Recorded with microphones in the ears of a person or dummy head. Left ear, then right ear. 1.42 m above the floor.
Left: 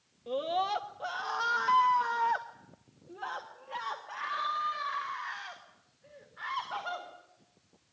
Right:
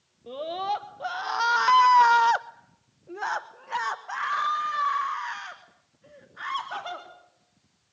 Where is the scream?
Centre (ahead or behind), 1.2 m; by 7.1 s 35° right (ahead or behind), 3.5 m.